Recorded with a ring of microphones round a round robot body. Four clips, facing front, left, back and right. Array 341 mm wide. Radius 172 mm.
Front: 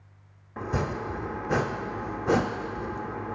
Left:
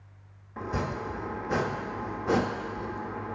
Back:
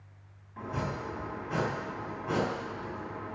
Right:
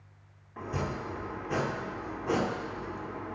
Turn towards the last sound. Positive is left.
turn(degrees=20)